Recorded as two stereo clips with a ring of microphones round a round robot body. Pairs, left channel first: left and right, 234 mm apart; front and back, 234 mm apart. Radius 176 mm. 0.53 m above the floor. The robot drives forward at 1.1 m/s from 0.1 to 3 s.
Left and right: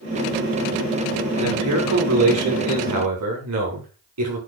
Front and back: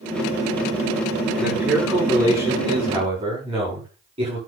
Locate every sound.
1.4 s a man speaking: 90° right, 6.5 m; by 4.4 s 105° right, 6.5 m